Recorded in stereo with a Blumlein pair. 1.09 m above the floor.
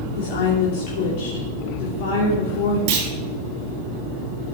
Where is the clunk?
50° right, 1.8 m.